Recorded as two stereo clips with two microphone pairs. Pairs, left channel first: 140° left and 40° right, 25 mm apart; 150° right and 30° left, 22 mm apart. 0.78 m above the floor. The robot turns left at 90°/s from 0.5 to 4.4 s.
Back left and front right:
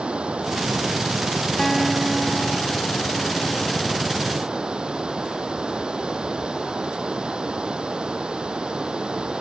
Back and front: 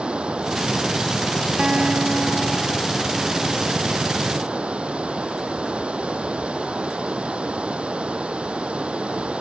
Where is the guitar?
75° left; by 3.9 s 130° right.